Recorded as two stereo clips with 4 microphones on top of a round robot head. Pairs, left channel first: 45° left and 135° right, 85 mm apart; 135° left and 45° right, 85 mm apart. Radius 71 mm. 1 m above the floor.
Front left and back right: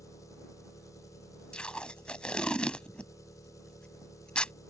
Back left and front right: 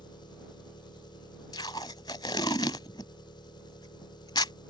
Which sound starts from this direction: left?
An engine running, at 0.0 s.